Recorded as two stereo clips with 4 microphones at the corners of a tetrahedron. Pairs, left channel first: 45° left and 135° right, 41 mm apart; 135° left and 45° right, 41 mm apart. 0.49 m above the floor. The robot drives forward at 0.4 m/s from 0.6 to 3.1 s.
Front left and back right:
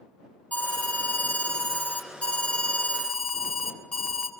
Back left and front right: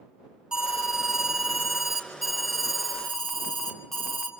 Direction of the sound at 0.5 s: 25° left.